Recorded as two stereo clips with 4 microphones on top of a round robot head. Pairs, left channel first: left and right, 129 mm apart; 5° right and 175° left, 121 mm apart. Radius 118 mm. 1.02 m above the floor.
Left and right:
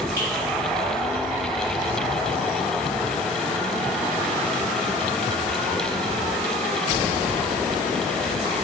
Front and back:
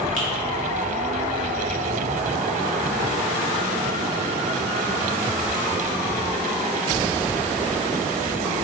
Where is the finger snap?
15° right, 1.0 m.